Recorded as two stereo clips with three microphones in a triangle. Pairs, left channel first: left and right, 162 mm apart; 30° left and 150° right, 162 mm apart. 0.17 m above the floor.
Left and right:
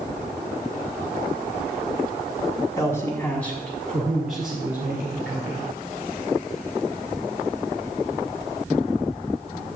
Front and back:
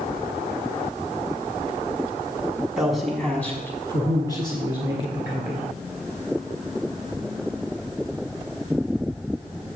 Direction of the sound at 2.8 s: 130° left.